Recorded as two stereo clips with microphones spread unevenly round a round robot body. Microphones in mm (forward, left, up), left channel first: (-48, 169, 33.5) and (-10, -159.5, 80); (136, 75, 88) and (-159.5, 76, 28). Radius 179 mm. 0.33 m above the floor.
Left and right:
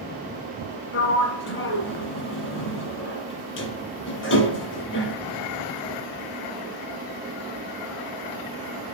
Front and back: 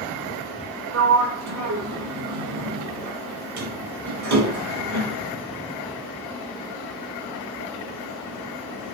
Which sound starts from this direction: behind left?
A sliding door, at 0.9 s.